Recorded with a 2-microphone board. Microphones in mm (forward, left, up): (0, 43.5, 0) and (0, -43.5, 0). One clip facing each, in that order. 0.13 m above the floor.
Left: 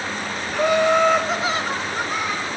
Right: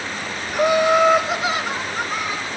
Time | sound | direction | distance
0.5 | laughter | 15° right (ahead or behind) | 1.1 m